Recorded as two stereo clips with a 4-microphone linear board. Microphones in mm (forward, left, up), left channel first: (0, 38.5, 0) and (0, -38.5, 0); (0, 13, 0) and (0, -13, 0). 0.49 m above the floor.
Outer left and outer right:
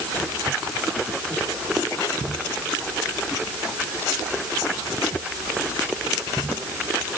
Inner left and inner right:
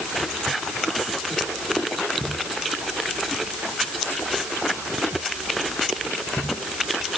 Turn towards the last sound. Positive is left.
No sound to turn to.